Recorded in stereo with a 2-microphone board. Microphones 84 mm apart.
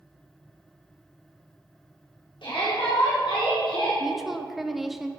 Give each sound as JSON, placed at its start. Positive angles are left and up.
{"t": 2.4, "sound": "a shout", "side_deg": 85, "distance_m": 4.0}
{"t": 4.0, "sound": "a woman speaking", "side_deg": 0, "distance_m": 0.9}